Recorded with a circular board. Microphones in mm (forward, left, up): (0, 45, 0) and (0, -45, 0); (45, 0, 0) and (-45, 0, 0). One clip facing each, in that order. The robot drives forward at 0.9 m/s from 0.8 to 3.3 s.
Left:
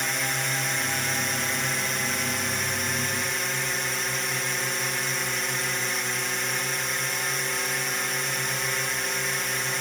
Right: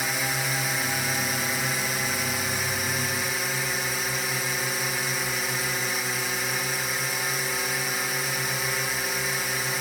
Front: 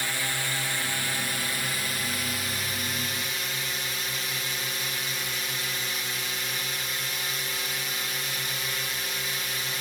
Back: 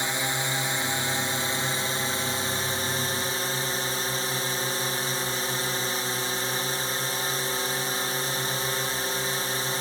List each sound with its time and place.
0.0 s a drone: 170° right; by 9.8 s 175° right